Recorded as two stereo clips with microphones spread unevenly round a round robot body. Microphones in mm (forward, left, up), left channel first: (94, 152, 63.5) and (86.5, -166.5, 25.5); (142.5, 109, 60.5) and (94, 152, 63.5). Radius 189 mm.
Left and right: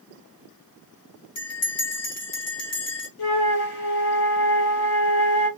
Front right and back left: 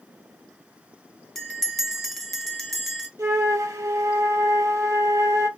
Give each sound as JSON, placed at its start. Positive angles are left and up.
{"t": 1.4, "sound": "a bell", "azimuth_deg": 45, "distance_m": 1.5}
{"t": 3.2, "sound": "a flute", "azimuth_deg": 100, "distance_m": 1.6}